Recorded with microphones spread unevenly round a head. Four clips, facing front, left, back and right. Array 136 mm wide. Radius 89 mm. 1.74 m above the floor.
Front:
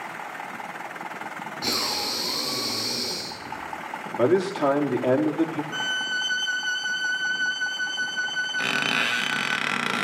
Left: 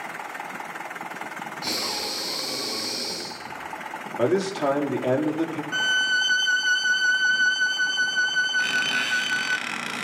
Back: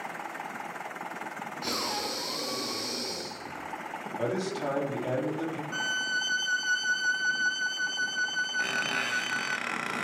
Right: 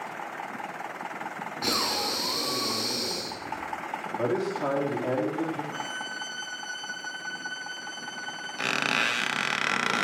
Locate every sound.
1.6 s breathing: 60° right, 6.5 m
4.2 s a man speaking: 25° left, 4 m
5.7 s a violin: 75° left, 1.5 m
8.6 s a squeak: 25° right, 1.7 m